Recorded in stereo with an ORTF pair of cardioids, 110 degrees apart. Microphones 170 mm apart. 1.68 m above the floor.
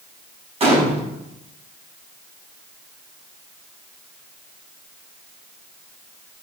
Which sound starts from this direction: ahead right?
A gunshot, at 0.6 s.